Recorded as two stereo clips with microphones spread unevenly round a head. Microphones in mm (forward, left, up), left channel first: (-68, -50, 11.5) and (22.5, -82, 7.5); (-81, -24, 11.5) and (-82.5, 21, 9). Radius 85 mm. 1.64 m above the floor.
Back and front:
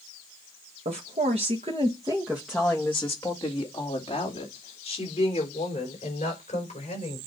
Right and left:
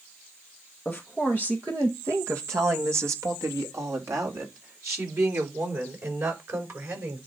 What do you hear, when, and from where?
0.8 s a woman speaking: 10° right, 1.4 m; by 7.2 s 110° left, 6 m